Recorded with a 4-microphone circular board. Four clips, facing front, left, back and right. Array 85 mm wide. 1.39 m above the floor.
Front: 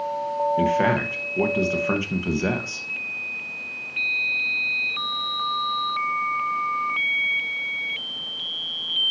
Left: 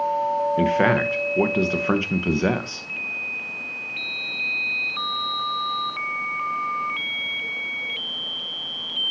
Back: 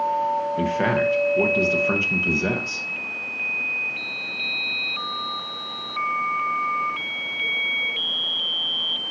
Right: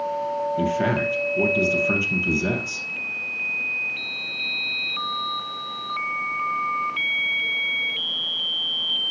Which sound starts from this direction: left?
A man speaking, at 0.6 s.